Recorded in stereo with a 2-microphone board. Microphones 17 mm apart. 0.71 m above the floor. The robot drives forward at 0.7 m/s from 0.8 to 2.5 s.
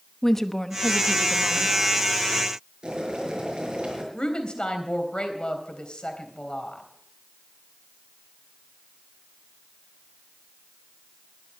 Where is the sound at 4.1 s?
70° left (ahead or behind), 3.5 m.